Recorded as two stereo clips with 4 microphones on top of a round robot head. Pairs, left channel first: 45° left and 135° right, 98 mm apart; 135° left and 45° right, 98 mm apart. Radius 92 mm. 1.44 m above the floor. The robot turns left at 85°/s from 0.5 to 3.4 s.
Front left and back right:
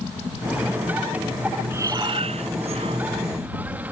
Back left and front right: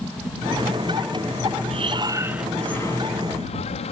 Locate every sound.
1.7 s breathing: 65° right; by 3.9 s 150° left